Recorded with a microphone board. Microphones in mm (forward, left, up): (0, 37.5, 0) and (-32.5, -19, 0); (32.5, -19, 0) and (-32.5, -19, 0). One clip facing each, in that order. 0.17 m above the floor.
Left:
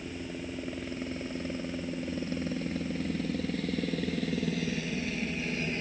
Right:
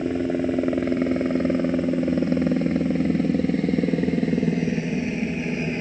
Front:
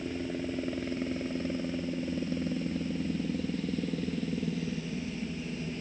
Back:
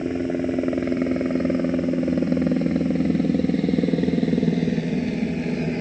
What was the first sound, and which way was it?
A helicopter, 140° right.